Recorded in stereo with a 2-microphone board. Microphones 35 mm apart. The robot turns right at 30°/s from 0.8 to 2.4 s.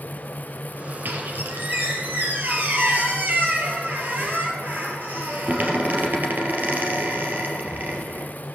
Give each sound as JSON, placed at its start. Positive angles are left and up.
{"t": 1.1, "sound": "a squeak", "azimuth_deg": -95, "distance_m": 3.0}